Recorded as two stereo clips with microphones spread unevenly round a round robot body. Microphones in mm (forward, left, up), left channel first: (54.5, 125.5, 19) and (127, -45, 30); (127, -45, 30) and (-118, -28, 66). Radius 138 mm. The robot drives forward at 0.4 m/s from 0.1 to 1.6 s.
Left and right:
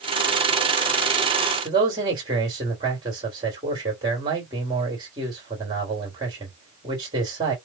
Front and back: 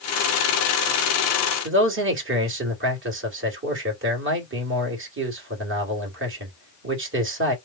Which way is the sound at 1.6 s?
140° right.